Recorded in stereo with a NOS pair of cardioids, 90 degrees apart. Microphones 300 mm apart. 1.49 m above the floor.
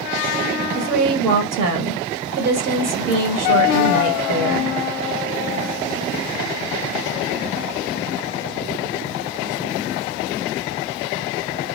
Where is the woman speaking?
60° right, 1.0 m.